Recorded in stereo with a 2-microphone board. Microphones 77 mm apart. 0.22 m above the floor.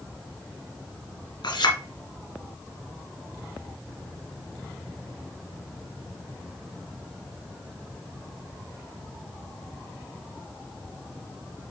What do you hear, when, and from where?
1.4 s a clink: 70° left (ahead or behind), 2.5 m